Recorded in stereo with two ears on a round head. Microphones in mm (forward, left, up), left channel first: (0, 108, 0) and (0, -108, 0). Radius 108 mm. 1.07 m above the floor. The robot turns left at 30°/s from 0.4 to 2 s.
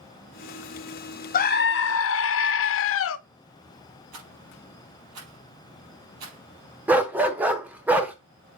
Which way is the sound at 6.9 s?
5° right (ahead or behind).